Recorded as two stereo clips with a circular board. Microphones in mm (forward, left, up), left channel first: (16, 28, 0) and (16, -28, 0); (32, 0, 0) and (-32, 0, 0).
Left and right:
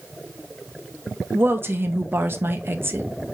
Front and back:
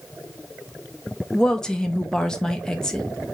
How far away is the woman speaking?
About 0.7 m.